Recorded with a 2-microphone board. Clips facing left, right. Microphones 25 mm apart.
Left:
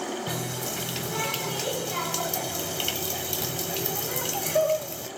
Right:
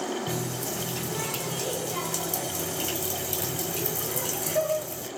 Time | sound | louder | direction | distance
0.3 | a running tap | even | 30° left (ahead or behind) | 1.2 m